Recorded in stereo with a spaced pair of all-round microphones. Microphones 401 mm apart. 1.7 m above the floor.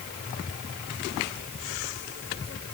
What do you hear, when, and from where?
Only background noise.